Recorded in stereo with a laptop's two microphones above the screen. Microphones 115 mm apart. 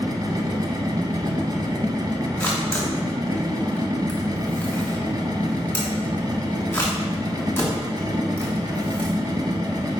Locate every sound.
0.0 s a machine running: 40° right (ahead or behind), 1.1 m
2.4 s a camera shutter: 20° left (ahead or behind), 1.5 m